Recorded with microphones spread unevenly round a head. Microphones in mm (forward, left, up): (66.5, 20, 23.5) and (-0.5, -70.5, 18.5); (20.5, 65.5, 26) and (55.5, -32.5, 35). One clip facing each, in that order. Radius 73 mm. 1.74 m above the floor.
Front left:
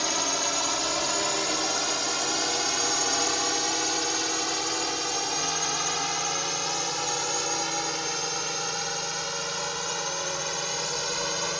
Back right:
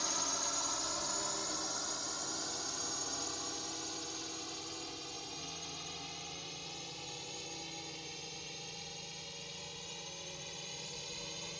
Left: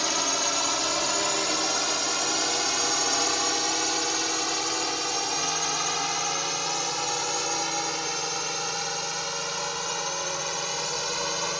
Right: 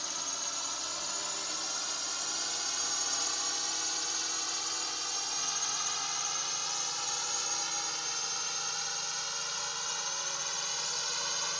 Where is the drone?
95° left; by 11.6 s 75° left.